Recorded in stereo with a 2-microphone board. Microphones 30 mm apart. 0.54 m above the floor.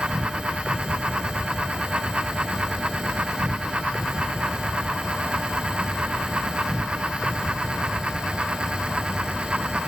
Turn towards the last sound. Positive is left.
turn(degrees=-25)  # may be behind; listen again after turning